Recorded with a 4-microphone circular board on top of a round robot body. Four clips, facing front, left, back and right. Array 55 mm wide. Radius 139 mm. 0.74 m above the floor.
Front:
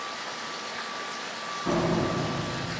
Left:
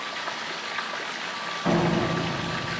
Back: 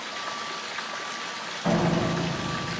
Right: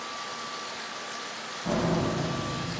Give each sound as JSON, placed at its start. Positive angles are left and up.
{"t": 0.0, "sound": "running water", "azimuth_deg": 105, "distance_m": 0.9}
{"t": 1.6, "sound": "a door slam", "azimuth_deg": 135, "distance_m": 4.0}